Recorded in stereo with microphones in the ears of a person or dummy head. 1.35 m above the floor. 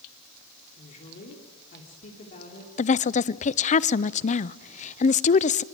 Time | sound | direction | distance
0.8 | a woman speaking | 40° left (ahead or behind) | 3 m
2.8 | a woman speaking | 35° left (ahead or behind) | 0.6 m